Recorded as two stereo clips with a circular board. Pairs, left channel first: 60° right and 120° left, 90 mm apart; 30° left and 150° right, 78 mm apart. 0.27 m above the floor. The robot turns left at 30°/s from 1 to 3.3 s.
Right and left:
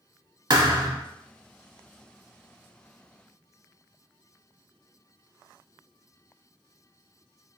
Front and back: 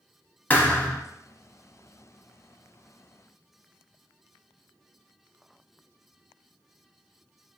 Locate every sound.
0.5 s a thud: 95° left, 0.6 m